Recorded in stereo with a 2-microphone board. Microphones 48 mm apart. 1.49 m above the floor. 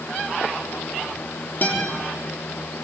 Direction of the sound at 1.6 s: 45° left (ahead or behind).